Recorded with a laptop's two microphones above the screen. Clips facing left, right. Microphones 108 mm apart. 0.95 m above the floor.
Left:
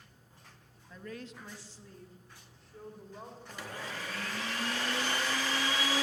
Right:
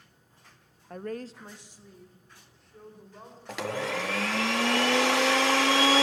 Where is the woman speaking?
65° right (ahead or behind), 0.7 m; by 4.5 s 10° left (ahead or behind), 5 m.